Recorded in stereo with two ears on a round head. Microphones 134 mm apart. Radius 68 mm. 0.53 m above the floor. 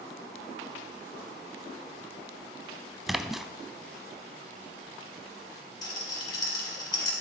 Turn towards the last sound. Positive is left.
turn(degrees=30)  # may be behind; listen again after turning